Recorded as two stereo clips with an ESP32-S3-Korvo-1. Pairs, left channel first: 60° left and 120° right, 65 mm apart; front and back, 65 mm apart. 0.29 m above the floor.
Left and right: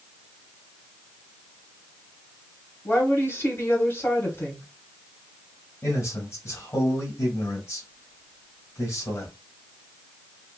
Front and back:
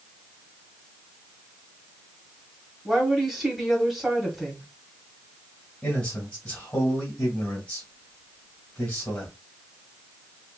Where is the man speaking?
65° left, 1.5 m.